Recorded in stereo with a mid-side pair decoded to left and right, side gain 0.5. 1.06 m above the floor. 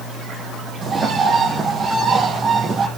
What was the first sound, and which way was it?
A bird, 30° right.